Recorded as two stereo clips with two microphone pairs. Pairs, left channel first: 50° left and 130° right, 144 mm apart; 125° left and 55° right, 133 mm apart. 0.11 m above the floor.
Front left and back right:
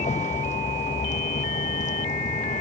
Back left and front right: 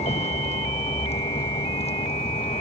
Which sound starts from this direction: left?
A vehicle, at 0.0 s.